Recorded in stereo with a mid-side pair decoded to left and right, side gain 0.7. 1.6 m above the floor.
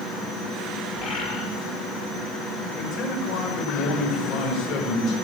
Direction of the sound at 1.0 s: 40° left.